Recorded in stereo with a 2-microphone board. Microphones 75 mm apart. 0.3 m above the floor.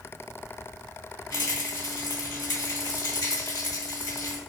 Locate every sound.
1.3 s a rattle: 50° left (ahead or behind), 2.5 m